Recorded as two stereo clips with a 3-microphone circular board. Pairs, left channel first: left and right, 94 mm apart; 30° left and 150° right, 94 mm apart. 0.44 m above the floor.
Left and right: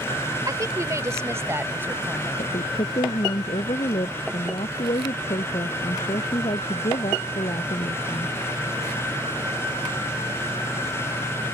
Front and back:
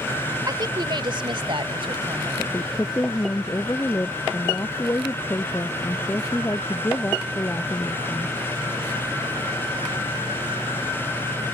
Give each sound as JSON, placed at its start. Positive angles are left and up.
{"t": 0.5, "sound": "a woman speaking", "azimuth_deg": -125}
{"t": 2.4, "sound": "a woman speaking", "azimuth_deg": 95}